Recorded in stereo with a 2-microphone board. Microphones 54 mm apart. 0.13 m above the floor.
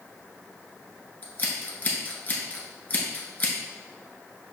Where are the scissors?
30° left (ahead or behind), 1.0 m.